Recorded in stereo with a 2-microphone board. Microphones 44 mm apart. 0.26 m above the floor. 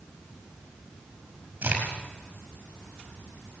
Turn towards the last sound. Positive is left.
turn(degrees=-40)  # may be behind; listen again after turning